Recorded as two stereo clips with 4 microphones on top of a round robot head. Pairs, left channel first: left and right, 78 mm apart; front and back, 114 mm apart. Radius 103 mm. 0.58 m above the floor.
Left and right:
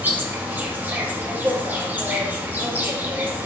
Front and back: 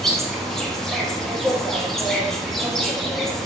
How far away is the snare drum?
No snare drum in this recording.